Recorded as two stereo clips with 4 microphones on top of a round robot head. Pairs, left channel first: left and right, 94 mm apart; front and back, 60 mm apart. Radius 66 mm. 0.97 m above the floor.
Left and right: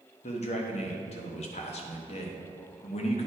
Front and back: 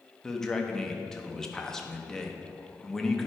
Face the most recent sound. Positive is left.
turn(degrees=80)